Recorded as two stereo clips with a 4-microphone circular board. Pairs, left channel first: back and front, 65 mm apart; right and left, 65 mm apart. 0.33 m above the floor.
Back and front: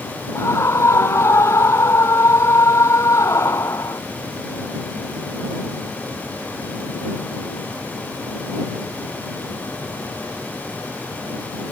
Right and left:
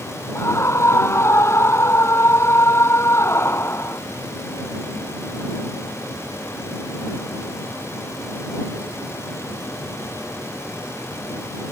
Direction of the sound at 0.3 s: 135° right.